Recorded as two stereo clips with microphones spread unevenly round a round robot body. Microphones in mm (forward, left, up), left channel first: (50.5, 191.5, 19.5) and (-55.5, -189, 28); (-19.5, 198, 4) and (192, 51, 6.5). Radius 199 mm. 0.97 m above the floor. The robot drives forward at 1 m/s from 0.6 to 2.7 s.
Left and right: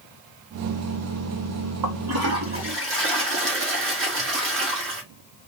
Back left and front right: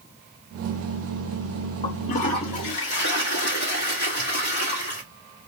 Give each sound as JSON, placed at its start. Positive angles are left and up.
{"t": 1.8, "sound": "a toilet flushing", "azimuth_deg": -145, "distance_m": 0.6}